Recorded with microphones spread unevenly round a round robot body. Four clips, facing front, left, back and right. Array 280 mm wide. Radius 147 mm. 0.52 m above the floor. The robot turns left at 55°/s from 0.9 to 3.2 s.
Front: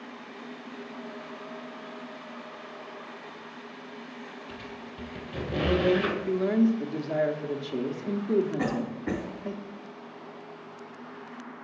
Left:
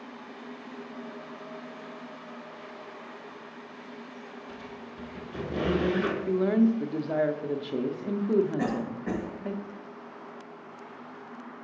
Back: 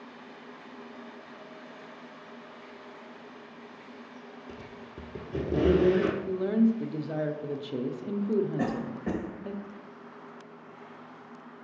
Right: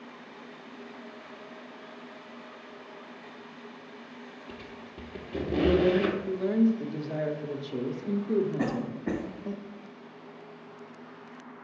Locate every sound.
4.5 s a squeak: 150° right, 1.3 m
6.3 s a woman speaking: 60° left, 0.7 m
8.6 s a cough: 170° left, 2 m